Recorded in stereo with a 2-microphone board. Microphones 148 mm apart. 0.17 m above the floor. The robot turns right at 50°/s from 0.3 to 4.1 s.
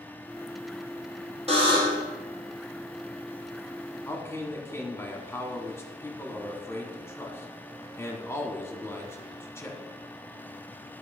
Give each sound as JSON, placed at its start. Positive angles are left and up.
{"t": 1.5, "sound": "a buzzer", "side_deg": -45, "distance_m": 2.0}
{"t": 4.0, "sound": "a man speaking", "side_deg": 20, "distance_m": 1.2}